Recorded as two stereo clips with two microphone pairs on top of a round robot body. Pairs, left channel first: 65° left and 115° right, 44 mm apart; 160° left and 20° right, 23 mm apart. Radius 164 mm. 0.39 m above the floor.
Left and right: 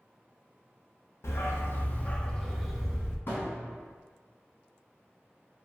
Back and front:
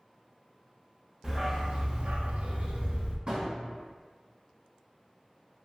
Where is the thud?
25° left, 1.9 m.